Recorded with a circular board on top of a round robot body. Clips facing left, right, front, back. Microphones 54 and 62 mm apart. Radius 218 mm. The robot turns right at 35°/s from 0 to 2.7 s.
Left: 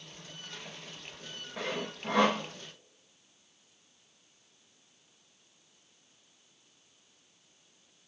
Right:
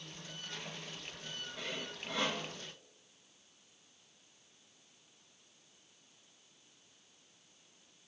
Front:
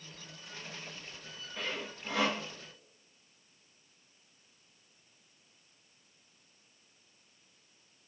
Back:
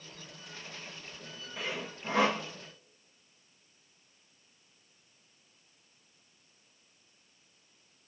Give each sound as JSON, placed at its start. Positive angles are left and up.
{"t": 1.6, "sound": "sawing", "azimuth_deg": 100, "distance_m": 0.5}